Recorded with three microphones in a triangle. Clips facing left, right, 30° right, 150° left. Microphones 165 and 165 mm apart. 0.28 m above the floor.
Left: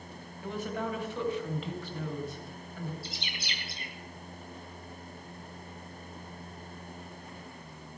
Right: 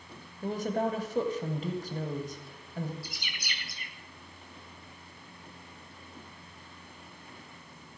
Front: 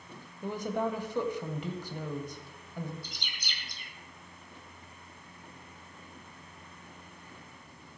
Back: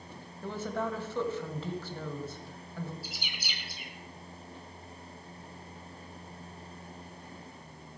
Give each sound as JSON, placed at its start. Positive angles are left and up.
{"t": 0.4, "sound": "a woman speaking", "azimuth_deg": -100, "distance_m": 1.3}
{"t": 3.0, "sound": "a bird", "azimuth_deg": 75, "distance_m": 1.7}